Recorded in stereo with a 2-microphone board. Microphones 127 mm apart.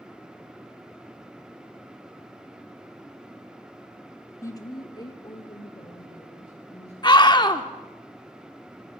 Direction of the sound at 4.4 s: 20° left (ahead or behind).